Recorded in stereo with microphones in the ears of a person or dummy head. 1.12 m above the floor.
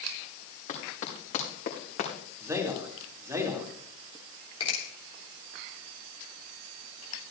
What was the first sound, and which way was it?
Running footsteps, 45° left (ahead or behind).